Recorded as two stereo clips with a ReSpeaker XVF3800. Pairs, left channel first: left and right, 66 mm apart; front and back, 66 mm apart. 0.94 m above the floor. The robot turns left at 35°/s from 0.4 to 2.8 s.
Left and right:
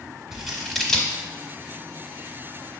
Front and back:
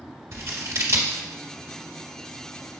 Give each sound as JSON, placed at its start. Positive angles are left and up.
{"t": 0.3, "sound": "scissors", "azimuth_deg": -170, "distance_m": 0.7}